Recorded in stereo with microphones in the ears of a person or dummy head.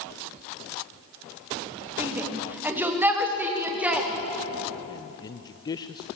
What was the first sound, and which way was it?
A shout, 15° right (ahead or behind).